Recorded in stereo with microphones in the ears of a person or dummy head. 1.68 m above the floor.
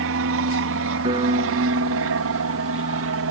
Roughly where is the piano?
Right.